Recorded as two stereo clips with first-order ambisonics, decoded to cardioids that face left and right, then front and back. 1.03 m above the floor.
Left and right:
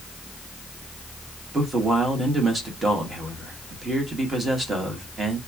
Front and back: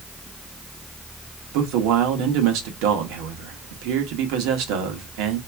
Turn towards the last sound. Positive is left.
turn(degrees=-165)